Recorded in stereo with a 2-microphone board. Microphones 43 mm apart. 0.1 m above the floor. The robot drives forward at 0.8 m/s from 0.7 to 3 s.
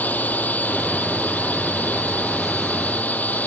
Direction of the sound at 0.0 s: 45° left (ahead or behind).